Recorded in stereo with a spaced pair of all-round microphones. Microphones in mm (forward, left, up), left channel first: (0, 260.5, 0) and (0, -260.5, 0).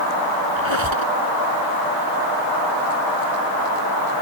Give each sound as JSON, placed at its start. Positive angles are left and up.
{"t": 0.6, "sound": "a squeak", "side_deg": -65}